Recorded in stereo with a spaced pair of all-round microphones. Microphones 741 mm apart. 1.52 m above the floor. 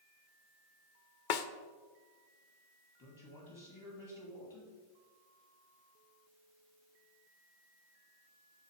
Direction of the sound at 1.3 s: 80° left.